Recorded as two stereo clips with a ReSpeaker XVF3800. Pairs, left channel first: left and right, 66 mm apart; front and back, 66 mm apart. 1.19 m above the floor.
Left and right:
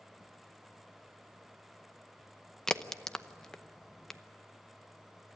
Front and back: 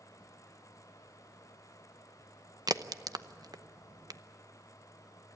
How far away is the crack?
About 0.7 m.